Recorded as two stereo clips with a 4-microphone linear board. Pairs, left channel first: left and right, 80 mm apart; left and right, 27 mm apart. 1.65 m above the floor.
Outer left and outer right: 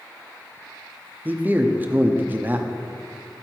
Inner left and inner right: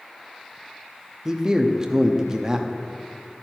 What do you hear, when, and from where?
1.2 s a man speaking: 25° right (ahead or behind), 0.6 m